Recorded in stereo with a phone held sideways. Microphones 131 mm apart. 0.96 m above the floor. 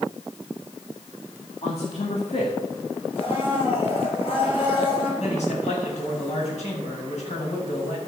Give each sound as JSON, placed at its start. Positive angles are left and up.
{"t": 1.6, "sound": "a man speaking", "side_deg": 55, "distance_m": 2.5}
{"t": 3.1, "sound": "a blender", "side_deg": 45, "distance_m": 6.0}
{"t": 5.2, "sound": "a man speaking", "side_deg": 65, "distance_m": 6.5}